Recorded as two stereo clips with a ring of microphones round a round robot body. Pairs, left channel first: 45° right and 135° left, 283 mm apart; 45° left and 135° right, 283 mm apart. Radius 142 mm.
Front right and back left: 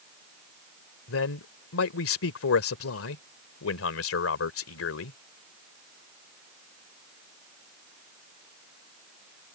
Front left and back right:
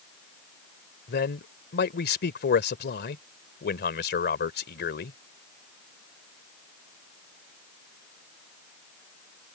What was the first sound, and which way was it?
A man speaking, 5° right.